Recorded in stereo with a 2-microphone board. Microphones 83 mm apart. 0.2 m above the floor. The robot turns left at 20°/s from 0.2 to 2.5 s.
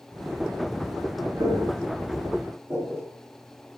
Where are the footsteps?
60° right (ahead or behind), 4.5 m; by 3.0 s 35° right (ahead or behind), 5.5 m.